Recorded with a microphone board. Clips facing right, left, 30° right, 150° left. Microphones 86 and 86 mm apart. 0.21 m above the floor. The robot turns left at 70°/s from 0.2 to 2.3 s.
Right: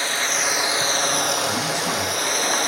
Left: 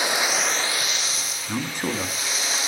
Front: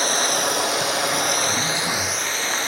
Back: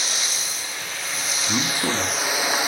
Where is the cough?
No cough in this recording.